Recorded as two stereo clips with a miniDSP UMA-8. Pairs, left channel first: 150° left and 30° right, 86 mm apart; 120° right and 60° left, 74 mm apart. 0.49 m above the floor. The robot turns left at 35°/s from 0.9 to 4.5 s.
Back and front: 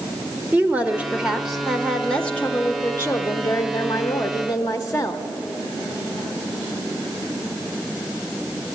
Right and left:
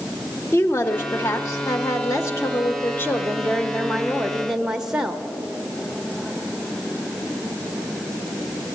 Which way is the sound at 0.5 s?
90° right.